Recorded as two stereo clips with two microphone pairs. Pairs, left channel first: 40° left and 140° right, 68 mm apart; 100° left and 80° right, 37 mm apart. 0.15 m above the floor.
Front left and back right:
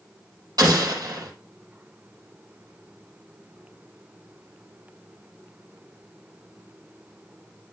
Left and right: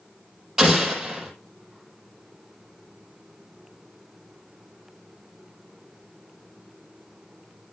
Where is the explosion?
155° right, 4.5 m.